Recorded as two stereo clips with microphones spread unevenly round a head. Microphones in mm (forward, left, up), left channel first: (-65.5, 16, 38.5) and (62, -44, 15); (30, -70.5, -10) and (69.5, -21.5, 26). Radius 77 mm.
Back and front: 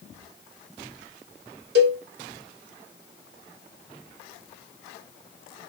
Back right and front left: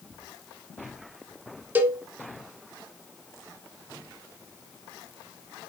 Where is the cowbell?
5° right, 0.9 m.